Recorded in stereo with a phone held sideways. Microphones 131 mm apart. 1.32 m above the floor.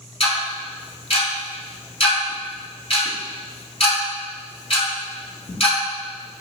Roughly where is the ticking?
Left.